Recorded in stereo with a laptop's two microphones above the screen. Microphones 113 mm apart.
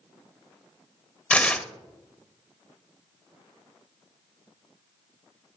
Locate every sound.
1.3 s tearing paper: 10° left (ahead or behind), 0.8 m